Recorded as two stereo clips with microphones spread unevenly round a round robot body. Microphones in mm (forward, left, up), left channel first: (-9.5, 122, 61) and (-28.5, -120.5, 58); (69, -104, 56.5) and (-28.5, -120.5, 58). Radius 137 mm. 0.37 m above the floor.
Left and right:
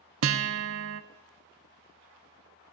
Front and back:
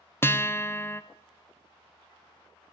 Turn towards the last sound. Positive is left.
turn(degrees=-60)